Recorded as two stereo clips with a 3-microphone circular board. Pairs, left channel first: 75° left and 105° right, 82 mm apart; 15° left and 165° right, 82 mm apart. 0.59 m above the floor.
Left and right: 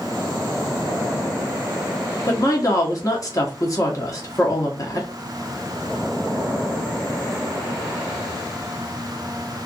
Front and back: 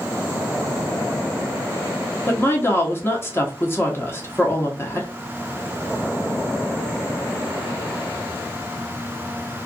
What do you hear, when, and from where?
2.3 s a woman speaking: 65° left, 0.8 m